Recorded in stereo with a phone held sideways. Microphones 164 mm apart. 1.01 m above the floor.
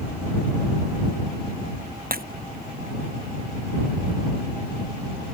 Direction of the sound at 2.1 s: 65° right (ahead or behind).